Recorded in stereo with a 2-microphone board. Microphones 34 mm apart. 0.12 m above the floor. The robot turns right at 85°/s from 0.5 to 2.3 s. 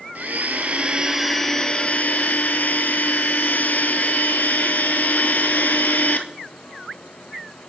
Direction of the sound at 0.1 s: 70° right.